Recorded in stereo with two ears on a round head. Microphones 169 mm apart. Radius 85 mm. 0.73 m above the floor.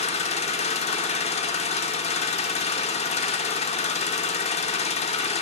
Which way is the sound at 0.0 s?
35° left (ahead or behind).